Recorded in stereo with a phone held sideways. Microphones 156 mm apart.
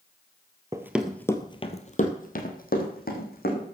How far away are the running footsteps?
About 1.2 m.